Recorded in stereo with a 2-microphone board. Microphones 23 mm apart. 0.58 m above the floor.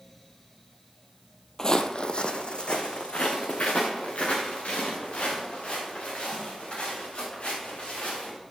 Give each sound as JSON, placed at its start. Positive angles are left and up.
{"t": 1.6, "sound": "footsteps", "side_deg": 25, "distance_m": 0.6}